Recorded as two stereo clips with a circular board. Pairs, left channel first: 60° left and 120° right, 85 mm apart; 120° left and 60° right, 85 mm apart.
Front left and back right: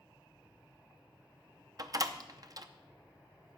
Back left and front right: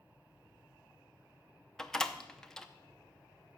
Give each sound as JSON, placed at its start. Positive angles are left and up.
{"t": 1.8, "sound": "a door slam", "azimuth_deg": -155, "distance_m": 0.8}